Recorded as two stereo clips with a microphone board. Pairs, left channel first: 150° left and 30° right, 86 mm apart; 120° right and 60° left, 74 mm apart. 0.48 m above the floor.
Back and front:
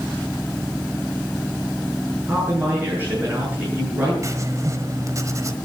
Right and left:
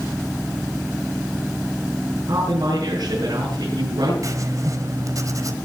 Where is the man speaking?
35° left, 9 m.